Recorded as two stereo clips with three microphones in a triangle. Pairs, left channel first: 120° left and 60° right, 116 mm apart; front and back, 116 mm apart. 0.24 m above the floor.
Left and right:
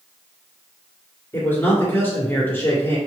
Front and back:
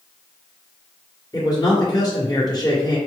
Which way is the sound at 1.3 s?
50° left.